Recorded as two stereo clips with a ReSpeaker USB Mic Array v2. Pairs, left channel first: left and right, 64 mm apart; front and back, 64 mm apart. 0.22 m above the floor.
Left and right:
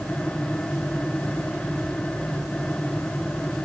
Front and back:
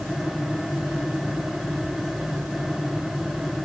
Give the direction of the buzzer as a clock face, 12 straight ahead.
No buzzer in this recording.